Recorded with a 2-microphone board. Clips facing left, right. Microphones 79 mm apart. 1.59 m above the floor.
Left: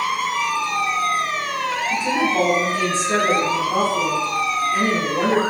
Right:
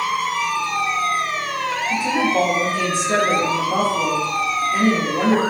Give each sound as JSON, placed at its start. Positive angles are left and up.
{"t": 1.9, "sound": "a woman speaking", "side_deg": -5, "distance_m": 0.9}